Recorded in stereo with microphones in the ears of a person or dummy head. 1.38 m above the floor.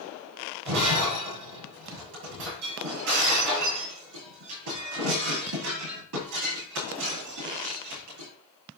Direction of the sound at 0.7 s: 65° right (ahead or behind).